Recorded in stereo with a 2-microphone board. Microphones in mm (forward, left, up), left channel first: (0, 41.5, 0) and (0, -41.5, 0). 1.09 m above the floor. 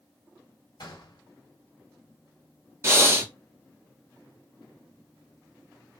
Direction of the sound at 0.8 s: 60° left (ahead or behind).